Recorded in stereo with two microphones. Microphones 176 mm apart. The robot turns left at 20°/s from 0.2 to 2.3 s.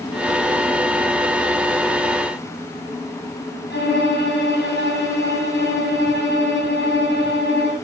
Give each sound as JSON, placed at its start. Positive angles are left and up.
{"t": 3.7, "sound": "a violin", "side_deg": 80, "distance_m": 8.0}